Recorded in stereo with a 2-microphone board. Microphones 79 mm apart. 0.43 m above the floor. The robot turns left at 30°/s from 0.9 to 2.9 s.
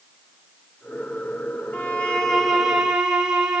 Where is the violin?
20° left, 1.5 m; by 3.6 s 15° right, 1.5 m.